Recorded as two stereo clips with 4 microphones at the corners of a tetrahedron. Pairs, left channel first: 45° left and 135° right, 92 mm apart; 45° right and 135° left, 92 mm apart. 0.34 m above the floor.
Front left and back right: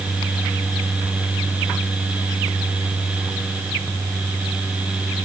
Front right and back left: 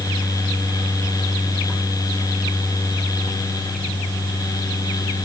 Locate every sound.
Only background noise.